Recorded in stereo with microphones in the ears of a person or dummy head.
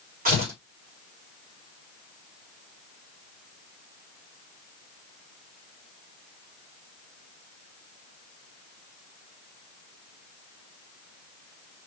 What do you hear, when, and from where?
0.2 s tearing paper: 40° right (ahead or behind), 2 m